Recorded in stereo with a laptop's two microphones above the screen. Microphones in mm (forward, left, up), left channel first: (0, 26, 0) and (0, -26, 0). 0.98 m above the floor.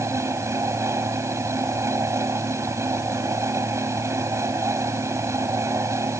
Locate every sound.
0.0 s a fan: 75° right (ahead or behind)